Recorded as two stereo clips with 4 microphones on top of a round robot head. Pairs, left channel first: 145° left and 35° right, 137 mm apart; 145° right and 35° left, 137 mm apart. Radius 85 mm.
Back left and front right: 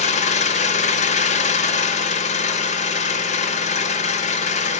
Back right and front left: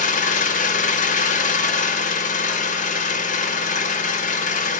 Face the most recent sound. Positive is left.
turn(degrees=-175)